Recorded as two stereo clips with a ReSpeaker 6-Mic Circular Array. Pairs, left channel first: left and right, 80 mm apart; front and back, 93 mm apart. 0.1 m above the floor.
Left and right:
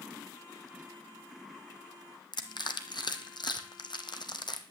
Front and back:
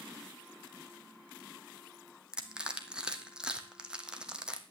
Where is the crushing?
100° left, 1.1 m.